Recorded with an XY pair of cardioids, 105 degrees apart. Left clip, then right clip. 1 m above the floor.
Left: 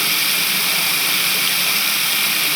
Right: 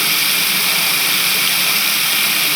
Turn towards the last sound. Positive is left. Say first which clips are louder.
# right 2 dB
turn(degrees=-15)